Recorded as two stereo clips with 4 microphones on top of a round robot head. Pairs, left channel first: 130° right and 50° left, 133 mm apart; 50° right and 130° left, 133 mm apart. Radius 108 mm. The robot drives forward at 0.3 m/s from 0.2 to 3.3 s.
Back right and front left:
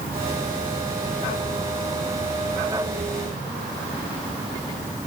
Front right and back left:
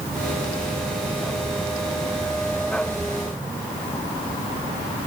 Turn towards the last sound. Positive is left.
No sound to turn to.